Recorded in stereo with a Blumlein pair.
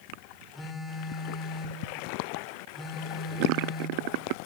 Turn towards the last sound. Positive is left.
turn(degrees=10)